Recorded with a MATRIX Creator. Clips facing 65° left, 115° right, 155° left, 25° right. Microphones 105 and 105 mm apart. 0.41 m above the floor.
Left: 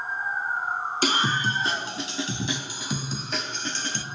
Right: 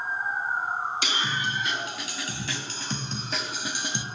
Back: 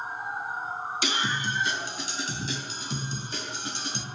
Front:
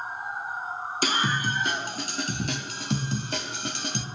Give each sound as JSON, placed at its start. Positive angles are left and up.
{"t": 1.0, "sound": "a scream", "azimuth_deg": 20, "distance_m": 3.5}